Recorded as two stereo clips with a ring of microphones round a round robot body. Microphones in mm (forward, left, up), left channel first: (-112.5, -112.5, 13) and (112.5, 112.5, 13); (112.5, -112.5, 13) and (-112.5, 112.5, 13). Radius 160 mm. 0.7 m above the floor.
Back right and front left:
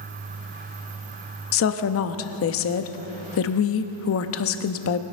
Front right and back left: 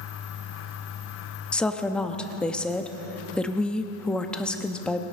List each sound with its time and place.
1.5 s a woman speaking: 130° right, 0.7 m